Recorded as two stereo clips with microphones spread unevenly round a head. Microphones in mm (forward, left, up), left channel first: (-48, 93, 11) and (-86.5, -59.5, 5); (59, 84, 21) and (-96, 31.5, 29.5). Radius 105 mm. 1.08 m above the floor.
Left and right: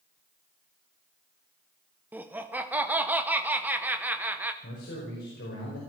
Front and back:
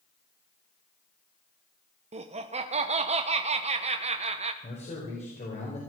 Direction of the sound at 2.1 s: 175° right.